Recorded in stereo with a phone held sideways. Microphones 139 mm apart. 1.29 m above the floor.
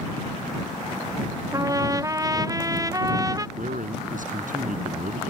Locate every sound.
1.5 s a trumpet: 25° right (ahead or behind)
3.6 s a man speaking: 70° right (ahead or behind)